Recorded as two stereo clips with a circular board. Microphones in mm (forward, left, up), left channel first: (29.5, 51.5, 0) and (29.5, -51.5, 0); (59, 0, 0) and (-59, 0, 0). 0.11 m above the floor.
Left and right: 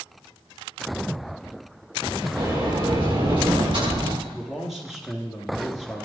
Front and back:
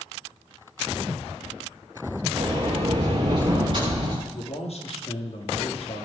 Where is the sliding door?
130° right, 6 m.